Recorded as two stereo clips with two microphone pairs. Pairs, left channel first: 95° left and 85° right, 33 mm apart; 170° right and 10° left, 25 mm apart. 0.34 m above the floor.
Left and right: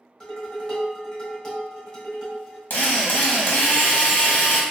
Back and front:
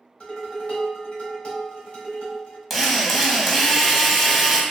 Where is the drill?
90° left, 0.7 m.